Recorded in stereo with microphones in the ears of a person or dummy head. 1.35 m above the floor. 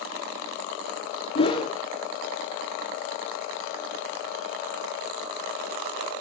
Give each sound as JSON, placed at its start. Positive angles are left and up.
{"t": 1.4, "sound": "a whoosh", "side_deg": 30, "distance_m": 1.3}